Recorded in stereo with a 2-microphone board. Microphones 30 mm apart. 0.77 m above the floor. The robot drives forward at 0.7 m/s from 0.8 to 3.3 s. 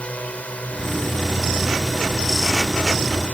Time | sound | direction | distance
0.0 | a drone | 50° left (ahead or behind) | ?